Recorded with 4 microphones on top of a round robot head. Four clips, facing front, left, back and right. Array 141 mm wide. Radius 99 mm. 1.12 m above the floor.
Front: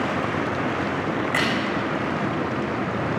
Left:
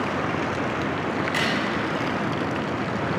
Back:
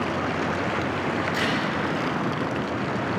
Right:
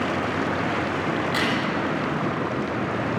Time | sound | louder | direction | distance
1.2 | a crack | right 1 dB, front 2 dB | 20° right | 6 m